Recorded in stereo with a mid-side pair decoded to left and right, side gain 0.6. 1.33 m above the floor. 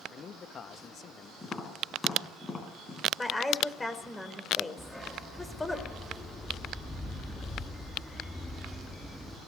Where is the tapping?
20° left, 5.5 m.